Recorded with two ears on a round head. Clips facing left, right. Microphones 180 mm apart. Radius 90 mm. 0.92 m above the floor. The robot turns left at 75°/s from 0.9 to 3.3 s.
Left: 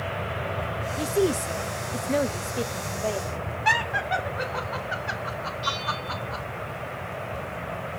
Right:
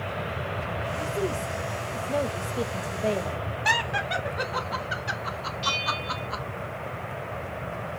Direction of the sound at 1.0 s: 120° left.